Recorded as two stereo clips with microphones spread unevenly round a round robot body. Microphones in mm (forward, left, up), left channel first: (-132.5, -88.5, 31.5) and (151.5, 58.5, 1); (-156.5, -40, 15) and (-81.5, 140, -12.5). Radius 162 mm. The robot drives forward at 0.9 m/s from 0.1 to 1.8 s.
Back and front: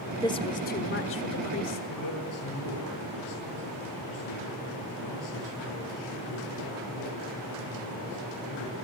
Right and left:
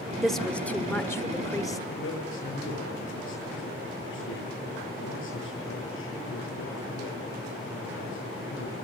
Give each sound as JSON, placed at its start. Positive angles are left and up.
{"t": 0.2, "sound": "a woman speaking", "azimuth_deg": 130, "distance_m": 1.1}
{"t": 1.9, "sound": "a man speaking", "azimuth_deg": -120, "distance_m": 7.5}